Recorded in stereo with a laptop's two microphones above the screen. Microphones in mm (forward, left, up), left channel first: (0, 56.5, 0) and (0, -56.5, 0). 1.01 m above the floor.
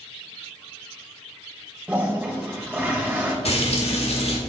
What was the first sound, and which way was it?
A toilet flushing, 15° right (ahead or behind).